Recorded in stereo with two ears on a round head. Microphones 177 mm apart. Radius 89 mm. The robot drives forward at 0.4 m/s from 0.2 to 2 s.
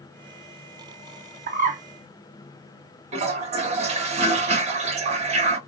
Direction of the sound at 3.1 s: 35° right (ahead or behind).